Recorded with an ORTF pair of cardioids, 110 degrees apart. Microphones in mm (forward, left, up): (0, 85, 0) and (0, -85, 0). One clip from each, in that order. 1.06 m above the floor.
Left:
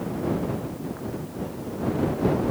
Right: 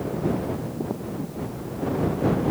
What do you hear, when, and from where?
Only background noise.